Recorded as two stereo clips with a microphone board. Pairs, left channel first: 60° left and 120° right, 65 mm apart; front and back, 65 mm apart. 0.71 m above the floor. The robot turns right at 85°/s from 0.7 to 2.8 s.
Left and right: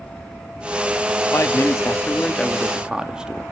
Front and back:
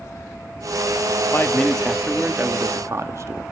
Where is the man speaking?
40° left, 1.2 m; by 3.4 s 165° left, 1.2 m.